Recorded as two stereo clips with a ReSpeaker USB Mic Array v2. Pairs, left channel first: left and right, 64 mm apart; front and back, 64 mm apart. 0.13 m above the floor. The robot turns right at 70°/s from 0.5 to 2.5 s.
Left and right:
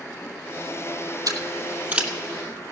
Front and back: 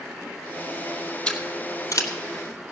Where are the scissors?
70° right, 1.4 m; by 2.1 s 15° right, 1.4 m.